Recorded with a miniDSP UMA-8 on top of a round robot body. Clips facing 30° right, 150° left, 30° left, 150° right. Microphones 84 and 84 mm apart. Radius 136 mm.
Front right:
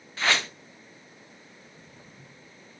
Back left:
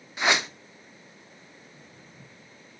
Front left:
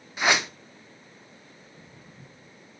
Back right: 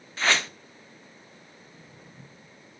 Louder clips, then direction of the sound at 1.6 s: Even, even; 100° right.